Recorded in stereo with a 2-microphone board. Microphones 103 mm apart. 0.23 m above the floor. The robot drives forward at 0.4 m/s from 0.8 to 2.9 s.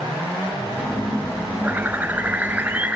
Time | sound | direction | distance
1.6 | a bird | 15° right (ahead or behind) | 0.6 m